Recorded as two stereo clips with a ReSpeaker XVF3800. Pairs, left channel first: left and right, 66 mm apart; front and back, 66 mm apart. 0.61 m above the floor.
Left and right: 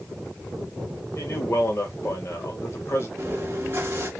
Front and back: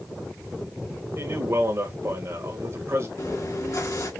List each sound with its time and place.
1.2 s a man speaking: 135° left, 2.5 m
3.2 s chewing: 35° right, 2.5 m